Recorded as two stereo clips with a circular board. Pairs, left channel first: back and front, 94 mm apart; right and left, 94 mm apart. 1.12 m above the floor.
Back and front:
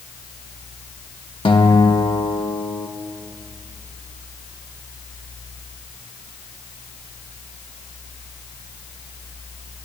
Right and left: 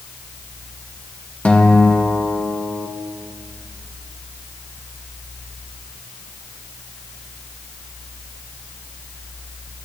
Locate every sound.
1.4 s a guitar: 165° right, 1.2 m